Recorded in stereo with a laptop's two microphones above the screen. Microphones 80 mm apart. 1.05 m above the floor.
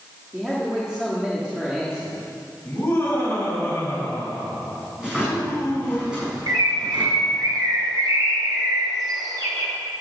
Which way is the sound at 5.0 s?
10° right (ahead or behind).